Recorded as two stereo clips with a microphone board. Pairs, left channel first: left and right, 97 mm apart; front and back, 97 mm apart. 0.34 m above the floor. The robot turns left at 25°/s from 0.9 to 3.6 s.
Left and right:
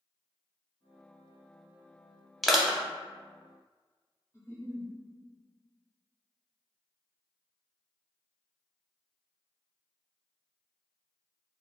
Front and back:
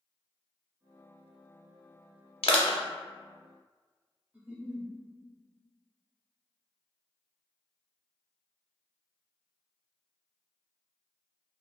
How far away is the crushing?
About 0.6 m.